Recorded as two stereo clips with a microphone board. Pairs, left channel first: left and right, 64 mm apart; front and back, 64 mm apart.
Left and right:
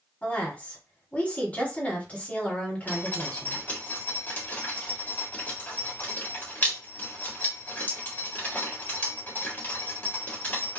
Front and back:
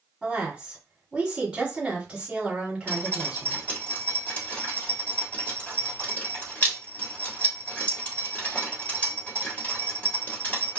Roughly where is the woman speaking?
Behind left.